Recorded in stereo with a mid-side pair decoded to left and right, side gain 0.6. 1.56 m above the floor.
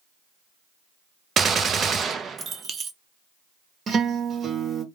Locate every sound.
1.4 s a gunshot: 40° right, 0.6 m
3.9 s a guitar: 35° right, 1.0 m